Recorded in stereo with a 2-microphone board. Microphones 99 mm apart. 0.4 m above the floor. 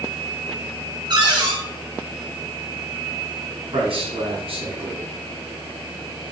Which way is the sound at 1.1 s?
50° right (ahead or behind).